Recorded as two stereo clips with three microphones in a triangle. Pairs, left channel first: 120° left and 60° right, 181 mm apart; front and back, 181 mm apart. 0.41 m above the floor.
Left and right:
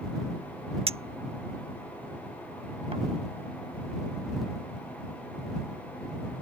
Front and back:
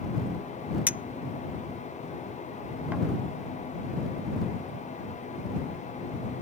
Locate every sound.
0.9 s a clink: 105° right